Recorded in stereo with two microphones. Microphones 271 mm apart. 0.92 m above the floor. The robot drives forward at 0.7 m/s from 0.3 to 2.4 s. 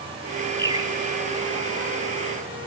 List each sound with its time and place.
0.6 s a bird: 15° right (ahead or behind), 0.9 m